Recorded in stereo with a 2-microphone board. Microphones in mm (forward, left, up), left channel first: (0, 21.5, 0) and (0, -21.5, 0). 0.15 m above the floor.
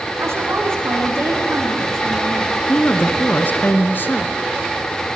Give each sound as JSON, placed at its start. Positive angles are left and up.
{"t": 0.2, "sound": "a woman speaking", "side_deg": -80, "distance_m": 9.0}
{"t": 2.7, "sound": "a woman speaking", "side_deg": 50, "distance_m": 1.9}